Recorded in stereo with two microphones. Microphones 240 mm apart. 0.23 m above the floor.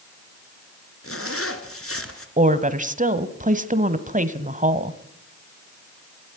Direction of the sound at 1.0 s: 65° left (ahead or behind).